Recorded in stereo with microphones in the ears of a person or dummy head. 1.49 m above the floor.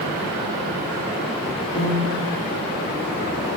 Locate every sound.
1.8 s a piano: 60° left (ahead or behind), 2.5 m